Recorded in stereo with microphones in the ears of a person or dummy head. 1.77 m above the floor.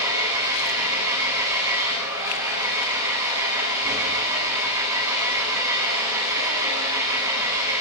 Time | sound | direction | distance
0.0 | an engine running | 10° right (ahead or behind) | 10 m